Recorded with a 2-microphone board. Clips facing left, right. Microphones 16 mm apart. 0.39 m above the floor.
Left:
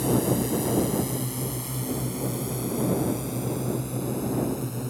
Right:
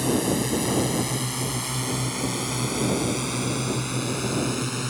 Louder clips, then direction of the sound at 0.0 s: Right 1 dB; 25° right (ahead or behind).